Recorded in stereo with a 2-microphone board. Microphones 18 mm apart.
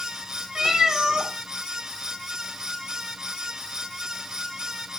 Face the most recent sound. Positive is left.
turn(degrees=-35)  # may be behind; listen again after turning